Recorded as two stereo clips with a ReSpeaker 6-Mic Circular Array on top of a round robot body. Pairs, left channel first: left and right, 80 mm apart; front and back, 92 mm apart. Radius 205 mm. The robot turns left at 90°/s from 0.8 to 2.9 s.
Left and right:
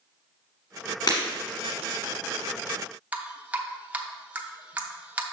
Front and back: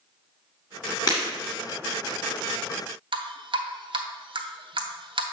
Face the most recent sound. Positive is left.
turn(degrees=-160)